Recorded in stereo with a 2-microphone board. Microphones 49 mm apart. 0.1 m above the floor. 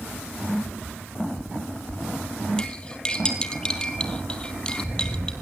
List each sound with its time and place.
2.6 s cutlery clinking: 20° left (ahead or behind), 2 m